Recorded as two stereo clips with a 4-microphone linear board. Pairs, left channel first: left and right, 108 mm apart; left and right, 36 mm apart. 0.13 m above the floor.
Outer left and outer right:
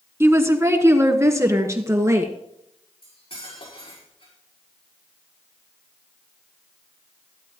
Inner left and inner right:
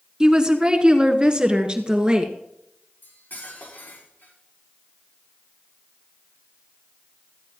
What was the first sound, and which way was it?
A woman speaking, 25° right (ahead or behind).